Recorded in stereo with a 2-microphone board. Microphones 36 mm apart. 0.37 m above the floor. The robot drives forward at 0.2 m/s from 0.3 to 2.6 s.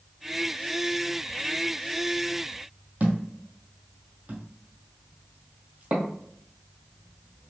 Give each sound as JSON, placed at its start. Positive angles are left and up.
{"t": 3.0, "sound": "a thud", "side_deg": -45, "distance_m": 0.8}